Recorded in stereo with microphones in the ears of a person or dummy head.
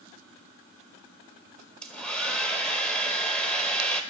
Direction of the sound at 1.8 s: 5° left (ahead or behind).